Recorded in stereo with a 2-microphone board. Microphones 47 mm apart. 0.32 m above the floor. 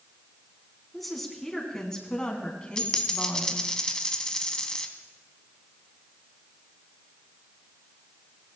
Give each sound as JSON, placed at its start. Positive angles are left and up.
{"t": 0.9, "sound": "a woman speaking", "side_deg": 0, "distance_m": 2.5}
{"t": 2.8, "sound": "a dropped coin", "side_deg": 15, "distance_m": 1.1}